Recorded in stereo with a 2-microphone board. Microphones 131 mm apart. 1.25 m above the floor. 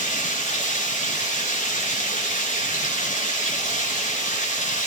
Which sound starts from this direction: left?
Running water, at 0.0 s.